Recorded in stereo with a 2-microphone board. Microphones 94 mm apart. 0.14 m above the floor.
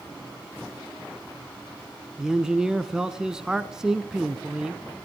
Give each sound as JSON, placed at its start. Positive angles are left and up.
{"t": 2.2, "sound": "a man speaking", "side_deg": -10, "distance_m": 1.1}